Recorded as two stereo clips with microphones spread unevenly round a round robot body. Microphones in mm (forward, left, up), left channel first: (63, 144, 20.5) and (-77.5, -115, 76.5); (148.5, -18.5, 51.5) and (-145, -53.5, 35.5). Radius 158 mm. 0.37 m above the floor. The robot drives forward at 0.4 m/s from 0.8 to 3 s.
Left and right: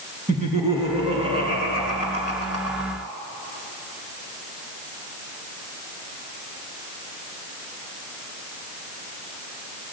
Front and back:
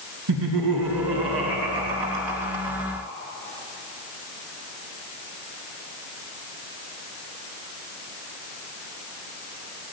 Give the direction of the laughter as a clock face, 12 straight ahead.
6 o'clock.